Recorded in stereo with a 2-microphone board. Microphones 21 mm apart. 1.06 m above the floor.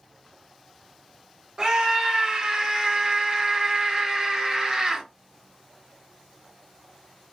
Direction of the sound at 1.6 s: 40° right (ahead or behind).